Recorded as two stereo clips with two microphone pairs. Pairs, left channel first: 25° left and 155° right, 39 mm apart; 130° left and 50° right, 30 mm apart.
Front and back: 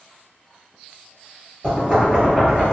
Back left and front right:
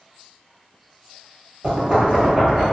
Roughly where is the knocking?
Right.